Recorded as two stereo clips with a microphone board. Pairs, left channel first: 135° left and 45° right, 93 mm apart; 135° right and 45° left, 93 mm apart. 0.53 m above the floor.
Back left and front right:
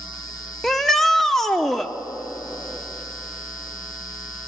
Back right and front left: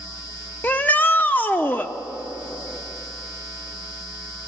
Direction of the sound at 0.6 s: 145° right.